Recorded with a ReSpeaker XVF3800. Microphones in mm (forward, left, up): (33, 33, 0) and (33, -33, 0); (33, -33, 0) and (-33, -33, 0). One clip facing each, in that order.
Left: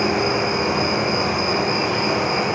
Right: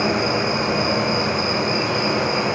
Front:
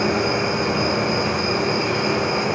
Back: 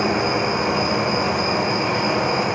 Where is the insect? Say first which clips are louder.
Even, even; 150° left, 1.9 m.